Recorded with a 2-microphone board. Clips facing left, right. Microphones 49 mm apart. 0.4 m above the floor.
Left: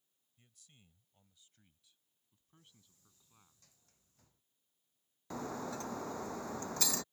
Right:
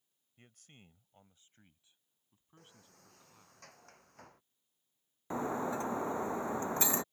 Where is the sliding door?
65° right (ahead or behind).